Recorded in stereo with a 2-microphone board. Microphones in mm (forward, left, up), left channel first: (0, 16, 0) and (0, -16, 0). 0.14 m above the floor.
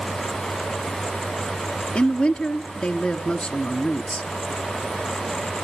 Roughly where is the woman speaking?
Left.